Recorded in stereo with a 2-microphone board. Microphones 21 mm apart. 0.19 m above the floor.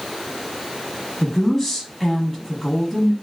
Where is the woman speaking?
20° left (ahead or behind), 1.0 m.